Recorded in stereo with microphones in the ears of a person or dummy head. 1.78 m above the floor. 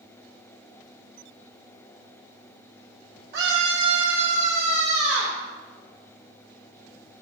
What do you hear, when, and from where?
3.3 s a scream: 55° right (ahead or behind), 1.0 m; by 5.4 s 80° right, 3.5 m